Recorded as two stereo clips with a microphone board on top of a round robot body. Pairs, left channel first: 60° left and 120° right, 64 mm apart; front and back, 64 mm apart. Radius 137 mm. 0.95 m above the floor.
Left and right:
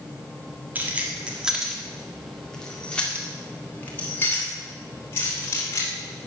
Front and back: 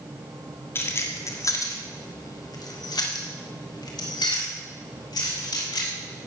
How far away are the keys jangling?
About 1.5 m.